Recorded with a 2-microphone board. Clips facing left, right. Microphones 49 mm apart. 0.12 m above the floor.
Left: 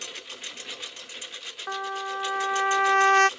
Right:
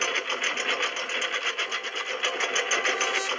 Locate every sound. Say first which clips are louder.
0.0 s a lawn mower: right 13 dB; 55° right (ahead or behind)
1.7 s a trumpet: even; 50° left (ahead or behind)